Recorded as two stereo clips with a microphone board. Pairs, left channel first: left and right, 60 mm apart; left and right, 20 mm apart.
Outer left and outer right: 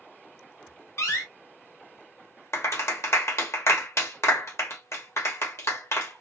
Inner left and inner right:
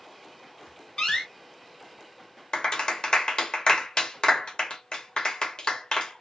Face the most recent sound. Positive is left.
turn(degrees=45)  # may be behind; listen again after turning